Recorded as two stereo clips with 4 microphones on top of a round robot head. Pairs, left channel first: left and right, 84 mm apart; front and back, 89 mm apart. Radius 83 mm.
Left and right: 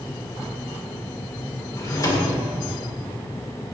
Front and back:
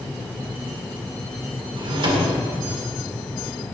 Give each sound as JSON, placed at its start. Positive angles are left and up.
{"t": 1.8, "sound": "a drawer", "azimuth_deg": 145, "distance_m": 2.0}